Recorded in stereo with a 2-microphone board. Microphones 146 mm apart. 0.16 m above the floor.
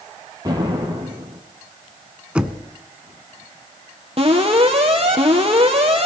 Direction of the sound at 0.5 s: 30° right (ahead or behind).